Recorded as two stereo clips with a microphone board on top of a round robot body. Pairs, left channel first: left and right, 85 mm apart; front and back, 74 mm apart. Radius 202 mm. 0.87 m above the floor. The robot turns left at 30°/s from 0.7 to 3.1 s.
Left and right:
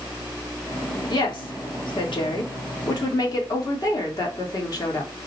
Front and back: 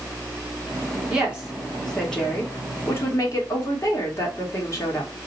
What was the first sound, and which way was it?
A woman speaking, 110° left.